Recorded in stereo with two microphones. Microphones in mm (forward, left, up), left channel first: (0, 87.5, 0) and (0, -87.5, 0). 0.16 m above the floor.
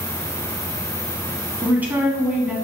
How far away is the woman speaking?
About 1.4 m.